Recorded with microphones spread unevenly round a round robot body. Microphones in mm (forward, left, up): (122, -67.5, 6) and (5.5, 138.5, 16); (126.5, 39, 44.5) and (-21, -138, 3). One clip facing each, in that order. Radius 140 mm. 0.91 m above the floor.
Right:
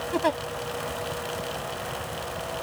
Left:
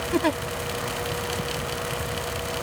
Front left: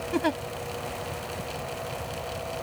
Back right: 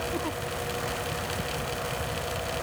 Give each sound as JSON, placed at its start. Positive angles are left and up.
{"t": 0.1, "sound": "a giggle", "azimuth_deg": 60}